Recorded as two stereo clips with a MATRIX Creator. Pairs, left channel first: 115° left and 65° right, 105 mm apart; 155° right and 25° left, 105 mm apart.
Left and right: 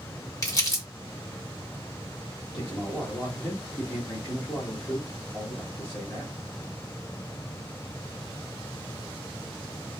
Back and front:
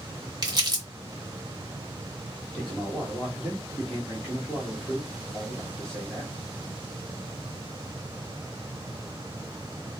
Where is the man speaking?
120° left, 1.7 m.